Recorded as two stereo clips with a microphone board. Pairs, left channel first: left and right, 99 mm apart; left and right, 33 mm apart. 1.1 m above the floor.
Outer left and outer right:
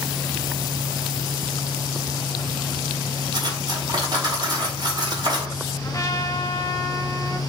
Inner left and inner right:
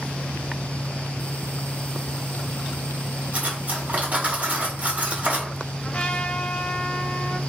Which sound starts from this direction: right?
Cutlery clinking, at 3.3 s.